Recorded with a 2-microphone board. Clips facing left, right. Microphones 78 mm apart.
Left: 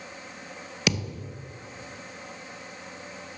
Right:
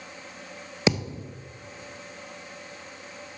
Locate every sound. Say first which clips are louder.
0.9 s a thud: right 4 dB; 25° right (ahead or behind), 0.7 m